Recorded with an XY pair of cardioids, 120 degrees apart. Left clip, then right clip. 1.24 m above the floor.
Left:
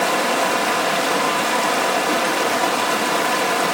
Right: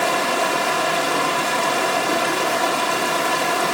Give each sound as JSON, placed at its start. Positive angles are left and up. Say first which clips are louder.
{"t": 0.0, "sound": "running water", "louder": "left 1 dB", "azimuth_deg": 20, "distance_m": 1.3}